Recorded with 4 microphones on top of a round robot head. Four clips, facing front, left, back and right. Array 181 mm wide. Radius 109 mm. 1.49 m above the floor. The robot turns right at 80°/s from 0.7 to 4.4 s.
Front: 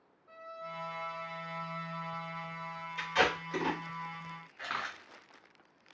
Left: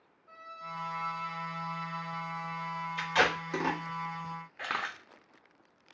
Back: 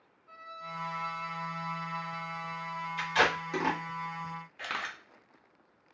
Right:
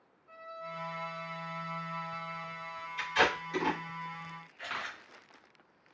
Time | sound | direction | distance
0.3 | a violin | 50° left | 1.7 m
3.0 | tape being pulled | 85° left | 1.2 m
4.6 | a camera shutter | 110° left | 0.8 m